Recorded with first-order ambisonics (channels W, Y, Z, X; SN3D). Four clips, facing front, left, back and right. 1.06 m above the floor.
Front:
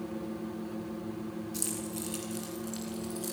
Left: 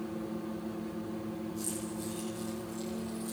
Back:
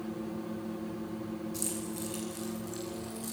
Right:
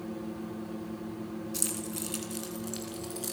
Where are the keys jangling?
80° right, 7 m; by 3.3 s 75° right, 8.5 m.